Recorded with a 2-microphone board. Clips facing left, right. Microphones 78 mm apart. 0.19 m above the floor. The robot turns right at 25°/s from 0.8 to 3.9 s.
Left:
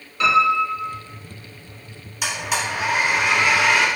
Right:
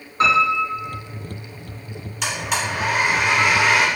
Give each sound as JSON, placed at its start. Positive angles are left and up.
{"t": 0.2, "sound": "a piano", "side_deg": -30, "distance_m": 1.9}
{"t": 2.2, "sound": "a blender", "side_deg": 5, "distance_m": 1.3}